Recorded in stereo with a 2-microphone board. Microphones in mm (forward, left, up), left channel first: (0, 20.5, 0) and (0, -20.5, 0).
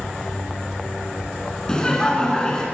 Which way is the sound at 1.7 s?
20° left (ahead or behind).